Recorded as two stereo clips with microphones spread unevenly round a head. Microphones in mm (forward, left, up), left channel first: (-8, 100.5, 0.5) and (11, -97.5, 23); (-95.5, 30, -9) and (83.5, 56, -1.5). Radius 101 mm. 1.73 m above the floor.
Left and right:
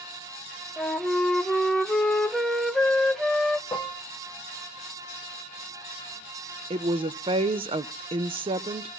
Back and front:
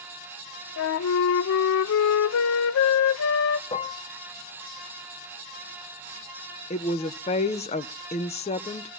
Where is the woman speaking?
130° right, 0.7 m.